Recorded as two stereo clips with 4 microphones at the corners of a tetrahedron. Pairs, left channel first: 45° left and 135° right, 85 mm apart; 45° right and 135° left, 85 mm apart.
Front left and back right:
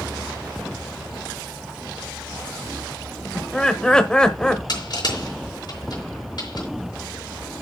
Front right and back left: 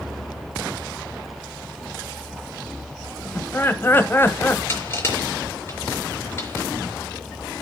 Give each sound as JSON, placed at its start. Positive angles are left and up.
{"t": 3.4, "sound": "laughter", "azimuth_deg": -25, "distance_m": 1.2}
{"t": 4.7, "sound": "crushing", "azimuth_deg": 15, "distance_m": 4.5}